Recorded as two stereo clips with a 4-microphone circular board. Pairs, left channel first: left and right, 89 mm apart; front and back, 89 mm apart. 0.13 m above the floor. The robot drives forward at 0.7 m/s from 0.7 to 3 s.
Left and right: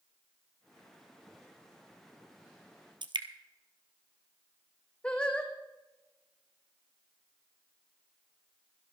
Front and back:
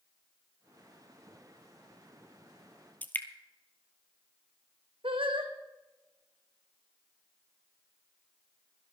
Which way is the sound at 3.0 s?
70° right.